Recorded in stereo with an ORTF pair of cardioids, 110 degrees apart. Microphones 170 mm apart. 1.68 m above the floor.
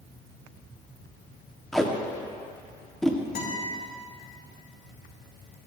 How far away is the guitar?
About 3.5 m.